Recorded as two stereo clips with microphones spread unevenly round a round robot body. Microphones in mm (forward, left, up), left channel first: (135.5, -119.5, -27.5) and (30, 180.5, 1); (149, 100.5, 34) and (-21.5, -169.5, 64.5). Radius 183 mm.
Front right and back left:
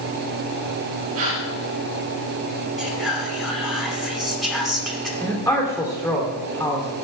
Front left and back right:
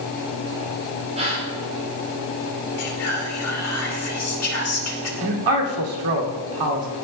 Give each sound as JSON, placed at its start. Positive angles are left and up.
{"t": 1.1, "sound": "a gasp", "azimuth_deg": 165, "distance_m": 5.5}
{"t": 2.8, "sound": "whispering", "azimuth_deg": 20, "distance_m": 2.5}
{"t": 5.2, "sound": "a man speaking", "azimuth_deg": -155, "distance_m": 2.5}